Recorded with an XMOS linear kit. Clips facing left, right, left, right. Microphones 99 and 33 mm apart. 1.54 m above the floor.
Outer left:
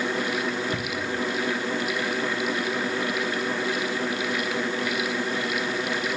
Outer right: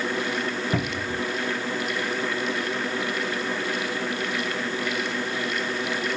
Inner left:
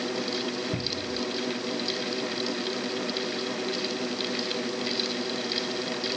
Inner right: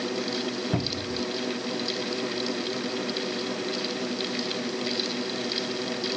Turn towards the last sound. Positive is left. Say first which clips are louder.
# outer right 1 dB, inner right 2 dB
turn(degrees=-40)  # may be behind; listen again after turning